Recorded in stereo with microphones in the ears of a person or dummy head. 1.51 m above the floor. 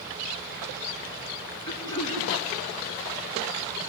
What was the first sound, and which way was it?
Throat clearing, 15° left (ahead or behind).